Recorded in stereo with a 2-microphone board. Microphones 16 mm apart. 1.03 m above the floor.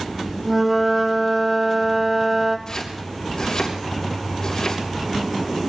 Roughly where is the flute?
Centre.